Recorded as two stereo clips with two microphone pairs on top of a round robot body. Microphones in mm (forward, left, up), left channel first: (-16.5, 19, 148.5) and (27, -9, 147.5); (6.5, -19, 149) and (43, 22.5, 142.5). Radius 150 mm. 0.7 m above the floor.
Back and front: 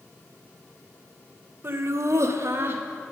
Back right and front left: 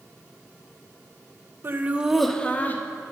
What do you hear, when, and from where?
1.6 s laughter: 5° left, 0.9 m; by 2.8 s 75° right, 1.2 m